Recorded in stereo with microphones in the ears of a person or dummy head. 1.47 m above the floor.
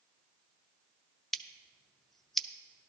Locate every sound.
1.3 s scissors: centre (ahead or behind), 0.5 m